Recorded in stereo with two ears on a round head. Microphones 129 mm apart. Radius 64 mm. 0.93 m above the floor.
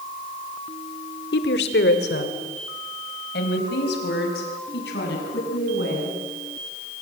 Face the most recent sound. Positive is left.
turn(degrees=85)